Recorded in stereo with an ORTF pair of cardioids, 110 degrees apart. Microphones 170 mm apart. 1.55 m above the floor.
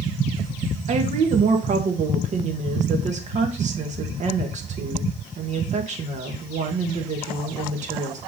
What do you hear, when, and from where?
0.9 s a woman speaking: 45° right, 2 m